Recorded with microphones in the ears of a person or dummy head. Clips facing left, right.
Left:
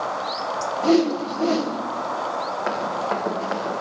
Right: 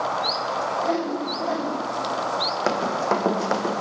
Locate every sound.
0.8 s a whoosh: 45° left (ahead or behind), 1.2 m
2.7 s running footsteps: 55° right (ahead or behind), 4 m; by 3.8 s 60° right (ahead or behind), 4 m